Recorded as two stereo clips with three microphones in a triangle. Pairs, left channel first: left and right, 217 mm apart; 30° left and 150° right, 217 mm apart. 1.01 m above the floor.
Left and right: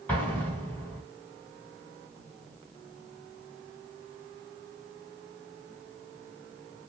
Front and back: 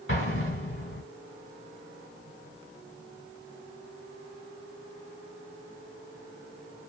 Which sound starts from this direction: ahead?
An explosion, at 0.1 s.